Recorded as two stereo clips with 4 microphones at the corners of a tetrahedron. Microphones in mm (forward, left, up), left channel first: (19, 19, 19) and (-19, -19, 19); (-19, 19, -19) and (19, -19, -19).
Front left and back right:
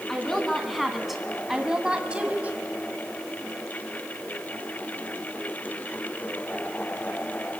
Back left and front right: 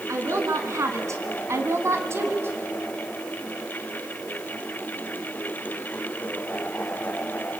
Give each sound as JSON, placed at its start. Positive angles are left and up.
{"t": 0.1, "sound": "a woman speaking", "azimuth_deg": -40, "distance_m": 3.5}